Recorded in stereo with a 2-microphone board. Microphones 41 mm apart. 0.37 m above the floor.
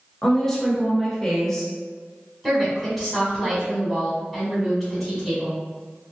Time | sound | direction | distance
0.2 | a woman speaking | 10° left (ahead or behind) | 0.8 m
2.4 | a woman speaking | centre (ahead or behind) | 1.6 m